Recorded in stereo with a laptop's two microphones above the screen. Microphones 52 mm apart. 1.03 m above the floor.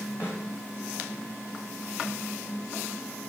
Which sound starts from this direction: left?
A snare drum, at 0.2 s.